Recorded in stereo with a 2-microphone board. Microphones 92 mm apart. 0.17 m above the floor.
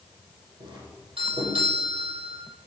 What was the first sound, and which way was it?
A doorbell, 80° right.